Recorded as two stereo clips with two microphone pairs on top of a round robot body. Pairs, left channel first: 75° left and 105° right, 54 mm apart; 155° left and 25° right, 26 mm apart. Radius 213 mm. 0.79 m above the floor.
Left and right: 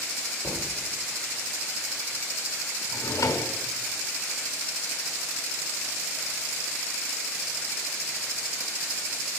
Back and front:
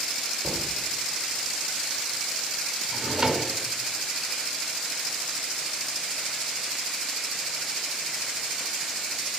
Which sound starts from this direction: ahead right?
A thud, at 0.4 s.